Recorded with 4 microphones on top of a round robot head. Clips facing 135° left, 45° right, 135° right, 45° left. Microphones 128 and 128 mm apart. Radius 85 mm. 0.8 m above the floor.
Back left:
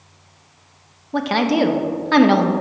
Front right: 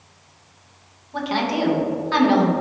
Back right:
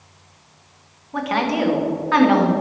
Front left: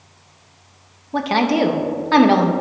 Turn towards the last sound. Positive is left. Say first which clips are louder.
# back left 5 dB, front left 4 dB
turn(degrees=105)